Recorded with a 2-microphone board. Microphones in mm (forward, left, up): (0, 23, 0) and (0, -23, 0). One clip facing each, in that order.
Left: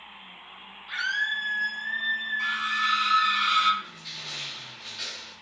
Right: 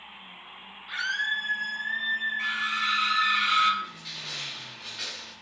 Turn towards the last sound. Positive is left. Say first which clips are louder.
# right 2 dB
turn(degrees=-30)  # may be behind; listen again after turning